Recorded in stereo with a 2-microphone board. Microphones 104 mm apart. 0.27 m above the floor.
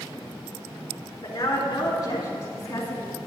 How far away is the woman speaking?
About 3.5 m.